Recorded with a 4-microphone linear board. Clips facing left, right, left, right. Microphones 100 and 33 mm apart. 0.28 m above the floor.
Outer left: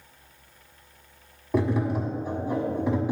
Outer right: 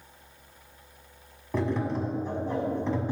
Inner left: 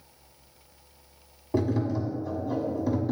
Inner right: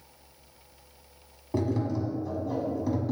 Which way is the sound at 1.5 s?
10° left (ahead or behind).